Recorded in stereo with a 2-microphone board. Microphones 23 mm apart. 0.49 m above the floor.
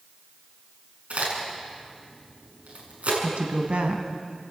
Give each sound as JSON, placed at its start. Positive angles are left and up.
{"t": 1.1, "sound": "a crack", "side_deg": -75, "distance_m": 6.5}
{"t": 3.2, "sound": "a woman speaking", "side_deg": -70, "distance_m": 3.0}